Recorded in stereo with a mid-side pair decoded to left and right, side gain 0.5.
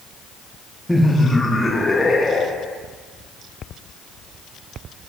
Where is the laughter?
10° left, 0.8 m; by 2.8 s 25° left, 2.0 m.